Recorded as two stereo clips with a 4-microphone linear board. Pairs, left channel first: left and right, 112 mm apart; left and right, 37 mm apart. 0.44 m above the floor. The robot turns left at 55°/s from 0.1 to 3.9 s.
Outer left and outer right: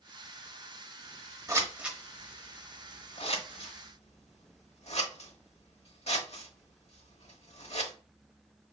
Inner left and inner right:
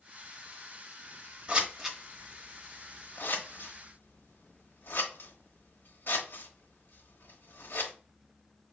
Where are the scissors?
30° right (ahead or behind), 1.1 m; by 7.9 s 70° left (ahead or behind), 1.1 m.